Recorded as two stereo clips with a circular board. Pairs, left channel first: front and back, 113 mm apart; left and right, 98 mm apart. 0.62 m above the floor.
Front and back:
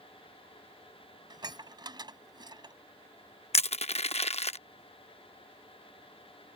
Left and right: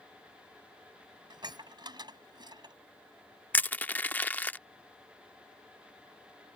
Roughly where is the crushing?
Ahead.